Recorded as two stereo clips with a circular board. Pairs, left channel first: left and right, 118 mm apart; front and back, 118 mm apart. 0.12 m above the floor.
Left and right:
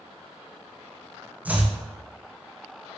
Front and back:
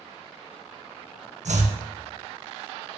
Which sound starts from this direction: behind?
Chopping, at 1.4 s.